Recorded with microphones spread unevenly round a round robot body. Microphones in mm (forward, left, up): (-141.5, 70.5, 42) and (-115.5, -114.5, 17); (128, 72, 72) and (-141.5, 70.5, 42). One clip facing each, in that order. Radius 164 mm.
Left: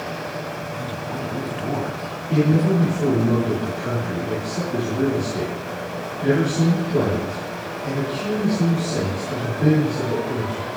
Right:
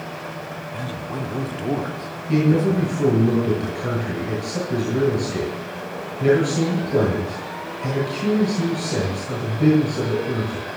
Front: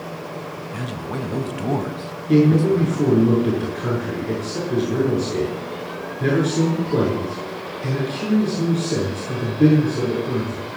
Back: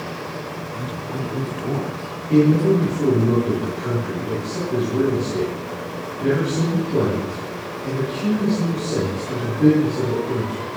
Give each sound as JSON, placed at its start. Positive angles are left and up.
{"t": 0.7, "sound": "a man speaking", "azimuth_deg": 10, "distance_m": 1.5}
{"t": 2.3, "sound": "a man speaking", "azimuth_deg": -20, "distance_m": 7.5}